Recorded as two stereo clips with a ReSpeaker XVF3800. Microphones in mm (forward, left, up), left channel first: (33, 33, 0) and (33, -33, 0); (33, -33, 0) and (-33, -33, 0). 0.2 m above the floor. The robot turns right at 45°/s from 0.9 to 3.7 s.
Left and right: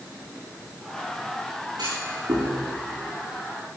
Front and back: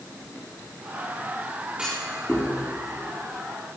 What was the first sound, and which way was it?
A clunk, 105° right.